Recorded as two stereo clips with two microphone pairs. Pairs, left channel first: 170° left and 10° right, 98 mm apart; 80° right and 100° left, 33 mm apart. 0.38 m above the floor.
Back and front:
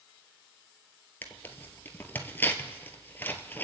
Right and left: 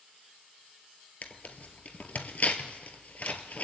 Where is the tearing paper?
120° right, 1.3 m.